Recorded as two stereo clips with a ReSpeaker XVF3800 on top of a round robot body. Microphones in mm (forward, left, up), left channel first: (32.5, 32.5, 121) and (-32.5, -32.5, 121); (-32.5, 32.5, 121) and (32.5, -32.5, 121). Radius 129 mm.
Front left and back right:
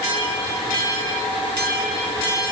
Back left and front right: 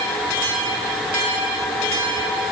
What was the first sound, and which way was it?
Only background noise.